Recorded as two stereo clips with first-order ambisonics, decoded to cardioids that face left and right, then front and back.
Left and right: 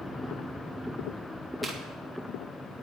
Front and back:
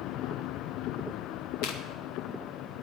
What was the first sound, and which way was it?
Chewing, 5° left.